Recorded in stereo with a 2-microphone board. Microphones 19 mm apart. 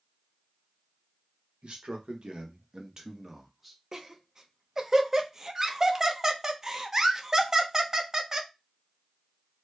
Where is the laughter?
25° right (ahead or behind), 0.8 m.